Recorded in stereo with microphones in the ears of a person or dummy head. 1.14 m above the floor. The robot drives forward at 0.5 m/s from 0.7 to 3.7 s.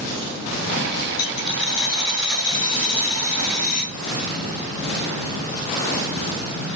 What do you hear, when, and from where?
1.2 s a dropped coin: 30° left (ahead or behind), 6 m; by 3.9 s 35° left (ahead or behind), 5 m